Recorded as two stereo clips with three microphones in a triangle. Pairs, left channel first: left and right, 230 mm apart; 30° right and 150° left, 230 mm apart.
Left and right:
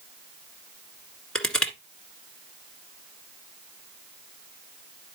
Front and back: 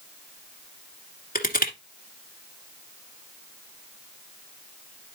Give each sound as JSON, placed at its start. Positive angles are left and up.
{"t": 1.4, "sound": "crushing", "azimuth_deg": 5, "distance_m": 1.8}